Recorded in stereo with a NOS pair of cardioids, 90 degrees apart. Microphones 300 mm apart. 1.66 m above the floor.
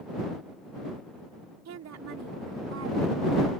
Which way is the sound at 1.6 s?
60° right.